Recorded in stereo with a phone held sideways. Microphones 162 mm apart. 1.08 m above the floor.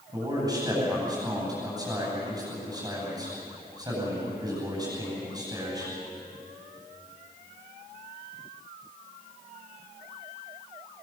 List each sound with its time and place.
0.1 s a man speaking: 25° right (ahead or behind), 9 m